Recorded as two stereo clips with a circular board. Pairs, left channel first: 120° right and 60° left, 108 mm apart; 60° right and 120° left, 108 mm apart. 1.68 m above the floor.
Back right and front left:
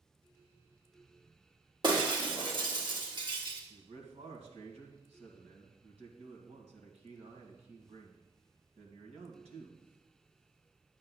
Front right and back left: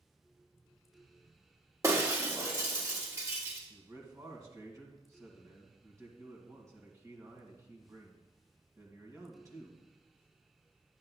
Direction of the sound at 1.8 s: 70° left.